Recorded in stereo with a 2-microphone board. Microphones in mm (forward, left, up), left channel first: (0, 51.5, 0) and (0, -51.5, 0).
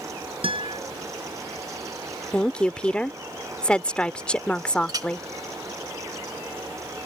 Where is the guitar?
60° right (ahead or behind).